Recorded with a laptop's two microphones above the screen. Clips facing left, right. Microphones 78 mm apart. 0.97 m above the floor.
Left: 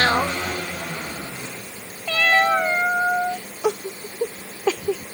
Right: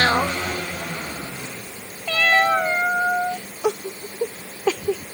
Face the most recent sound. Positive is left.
No sound to turn to.